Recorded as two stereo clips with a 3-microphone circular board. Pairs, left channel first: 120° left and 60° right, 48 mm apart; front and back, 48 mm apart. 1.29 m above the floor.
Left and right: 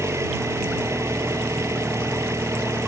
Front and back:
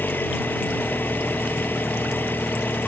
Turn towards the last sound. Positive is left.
turn(degrees=-50)